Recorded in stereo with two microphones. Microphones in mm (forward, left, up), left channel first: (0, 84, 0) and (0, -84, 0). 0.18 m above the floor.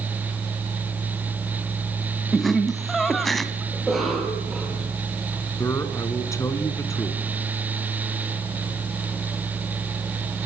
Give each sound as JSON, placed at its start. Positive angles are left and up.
{"t": 2.3, "sound": "laughter", "side_deg": 0, "distance_m": 1.1}
{"t": 3.7, "sound": "a cough", "side_deg": 0, "distance_m": 5.0}
{"t": 5.6, "sound": "a man speaking", "side_deg": 15, "distance_m": 2.0}